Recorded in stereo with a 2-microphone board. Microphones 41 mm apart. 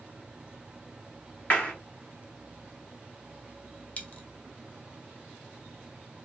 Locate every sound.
1.5 s a clap: 30° left (ahead or behind), 1.7 m
4.0 s a dropped coin: 30° left (ahead or behind), 0.7 m